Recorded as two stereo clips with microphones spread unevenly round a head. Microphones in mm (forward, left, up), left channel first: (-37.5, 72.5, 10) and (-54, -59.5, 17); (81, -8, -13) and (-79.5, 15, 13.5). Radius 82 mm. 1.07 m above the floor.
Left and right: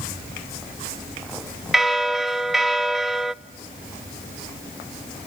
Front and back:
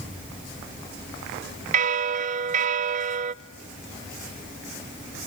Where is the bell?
170° left, 0.6 m.